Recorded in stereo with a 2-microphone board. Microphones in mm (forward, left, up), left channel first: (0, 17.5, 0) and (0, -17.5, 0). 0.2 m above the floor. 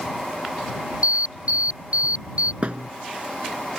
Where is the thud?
40° right (ahead or behind).